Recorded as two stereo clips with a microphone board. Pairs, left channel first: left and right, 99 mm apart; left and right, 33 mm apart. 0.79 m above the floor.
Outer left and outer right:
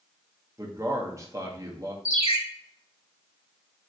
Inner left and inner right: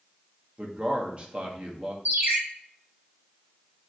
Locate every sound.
0.6 s a man speaking: 35° right (ahead or behind), 0.7 m
2.0 s a ringtone: 80° right, 1.1 m